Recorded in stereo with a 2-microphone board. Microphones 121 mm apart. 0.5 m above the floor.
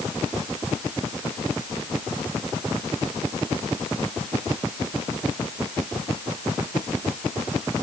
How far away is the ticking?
No ticking in this recording.